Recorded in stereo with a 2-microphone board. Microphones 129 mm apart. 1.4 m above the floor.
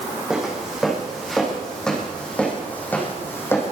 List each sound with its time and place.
0.3 s footsteps: 5° right (ahead or behind), 4.5 m; by 3.7 s 20° left (ahead or behind), 4.5 m